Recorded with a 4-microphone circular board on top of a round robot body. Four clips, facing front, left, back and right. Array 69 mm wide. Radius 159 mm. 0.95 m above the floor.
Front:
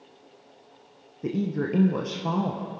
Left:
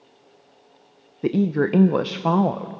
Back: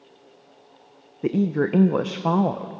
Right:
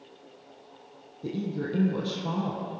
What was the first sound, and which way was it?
A woman speaking, 120° left.